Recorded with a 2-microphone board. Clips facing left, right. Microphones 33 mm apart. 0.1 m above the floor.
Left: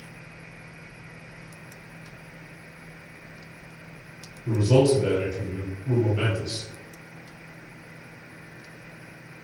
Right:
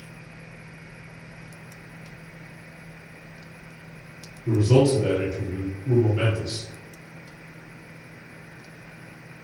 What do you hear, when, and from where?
4.5 s a man speaking: centre (ahead or behind), 1.7 m